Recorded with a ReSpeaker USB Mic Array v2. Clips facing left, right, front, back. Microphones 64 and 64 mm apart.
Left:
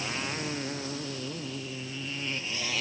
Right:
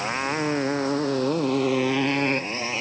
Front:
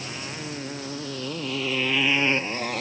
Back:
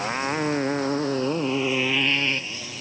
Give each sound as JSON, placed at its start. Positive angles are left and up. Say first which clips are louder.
{"t": 0.0, "sound": "a motorcycle", "louder": "right 9 dB, back 10 dB", "azimuth_deg": -140}